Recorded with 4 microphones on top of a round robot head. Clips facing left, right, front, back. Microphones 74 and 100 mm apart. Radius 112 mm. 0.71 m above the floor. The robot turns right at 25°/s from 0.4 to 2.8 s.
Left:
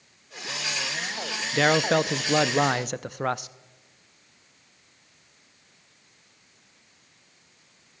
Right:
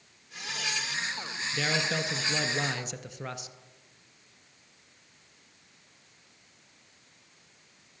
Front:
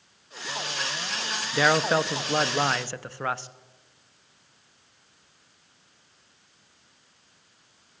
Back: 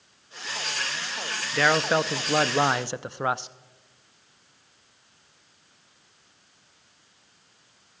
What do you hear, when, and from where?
1.5 s a man speaking: 80° left, 0.8 m; by 3.5 s 110° left, 0.8 m